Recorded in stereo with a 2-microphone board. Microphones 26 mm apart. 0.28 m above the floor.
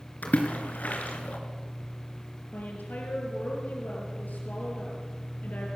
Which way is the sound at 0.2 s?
70° left (ahead or behind).